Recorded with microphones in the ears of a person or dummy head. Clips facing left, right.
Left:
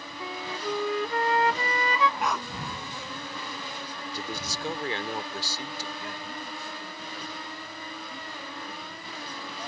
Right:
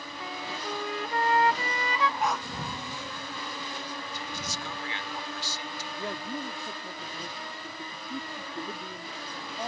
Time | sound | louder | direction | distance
0.2 | a flute | left 4 dB | 80° left | ?
2.2 | a dog barking | even | 65° left (ahead or behind) | ?
4.1 | a man speaking | left 2 dB | 40° left (ahead or behind) | ?
6.0 | a man speaking | right 4 dB | 35° right (ahead or behind) | ?